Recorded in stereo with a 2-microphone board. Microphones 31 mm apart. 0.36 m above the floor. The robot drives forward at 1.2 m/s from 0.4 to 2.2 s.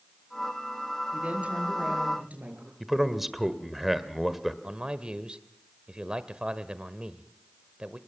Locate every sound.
1.1 s a woman speaking: 40° right (ahead or behind), 7.5 m; by 2.7 s 45° right (ahead or behind), 6.5 m
2.8 s a man speaking: 5° right (ahead or behind), 1.4 m
4.6 s a man speaking: 30° right (ahead or behind), 1.2 m